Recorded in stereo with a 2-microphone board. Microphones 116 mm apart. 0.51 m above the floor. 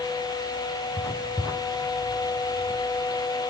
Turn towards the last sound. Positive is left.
turn(degrees=15)  # may be behind; listen again after turning